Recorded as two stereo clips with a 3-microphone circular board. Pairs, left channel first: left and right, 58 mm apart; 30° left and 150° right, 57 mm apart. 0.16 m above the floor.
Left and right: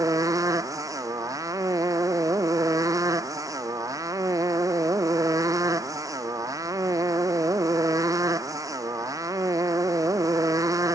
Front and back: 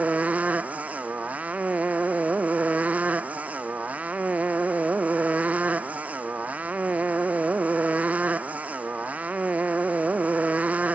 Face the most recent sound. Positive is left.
turn(degrees=-85)